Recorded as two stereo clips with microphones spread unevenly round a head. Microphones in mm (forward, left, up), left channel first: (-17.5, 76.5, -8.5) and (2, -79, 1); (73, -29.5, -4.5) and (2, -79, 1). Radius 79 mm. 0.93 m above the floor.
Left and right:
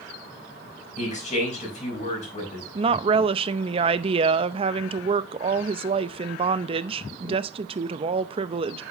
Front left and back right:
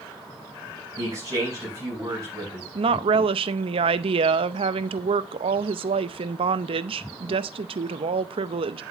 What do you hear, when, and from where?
1.0 s a man speaking: 145° left, 5.5 m
2.8 s a woman speaking: 140° right, 0.6 m